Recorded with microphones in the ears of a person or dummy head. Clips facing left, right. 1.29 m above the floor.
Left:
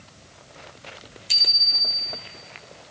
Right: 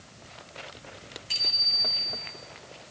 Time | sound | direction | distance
1.3 | a bicycle bell | 50° left (ahead or behind) | 4 m